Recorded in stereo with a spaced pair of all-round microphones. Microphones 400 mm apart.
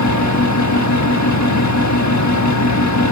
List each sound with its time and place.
0.0 s a fan: 40° left (ahead or behind), 1.4 m